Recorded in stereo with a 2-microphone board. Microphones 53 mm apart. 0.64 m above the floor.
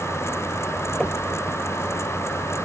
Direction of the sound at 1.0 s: 10° left (ahead or behind).